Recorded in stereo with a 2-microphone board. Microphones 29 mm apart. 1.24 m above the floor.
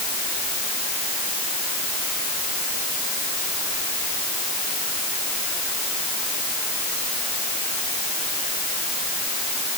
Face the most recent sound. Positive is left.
No sound to turn to.